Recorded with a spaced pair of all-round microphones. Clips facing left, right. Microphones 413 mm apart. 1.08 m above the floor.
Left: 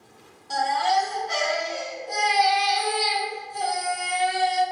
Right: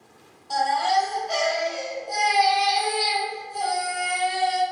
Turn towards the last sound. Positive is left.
turn(degrees=35)  # may be behind; listen again after turning